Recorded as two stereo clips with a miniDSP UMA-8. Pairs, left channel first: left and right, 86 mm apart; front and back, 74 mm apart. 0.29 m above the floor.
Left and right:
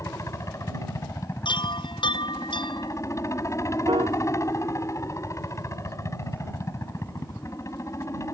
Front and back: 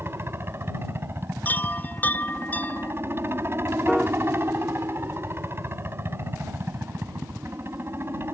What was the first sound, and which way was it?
A helicopter, 135° left.